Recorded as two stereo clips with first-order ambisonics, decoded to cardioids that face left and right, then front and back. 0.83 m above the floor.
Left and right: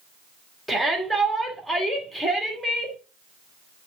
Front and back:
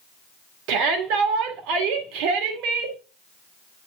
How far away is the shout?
About 2.5 m.